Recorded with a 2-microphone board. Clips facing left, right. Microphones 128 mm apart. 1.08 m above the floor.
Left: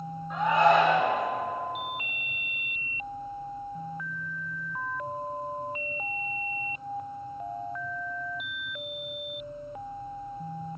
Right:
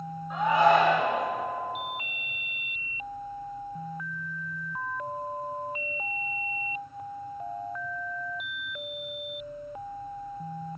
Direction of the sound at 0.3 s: 5° right (ahead or behind).